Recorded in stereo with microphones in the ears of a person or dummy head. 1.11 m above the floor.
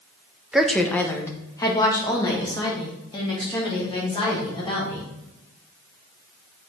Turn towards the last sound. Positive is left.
turn(degrees=30)  # may be behind; listen again after turning